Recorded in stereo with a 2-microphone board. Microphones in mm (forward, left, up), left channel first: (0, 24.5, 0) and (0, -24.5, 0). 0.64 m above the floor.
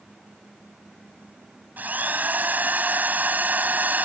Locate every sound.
1.8 s a drill: 40° right (ahead or behind)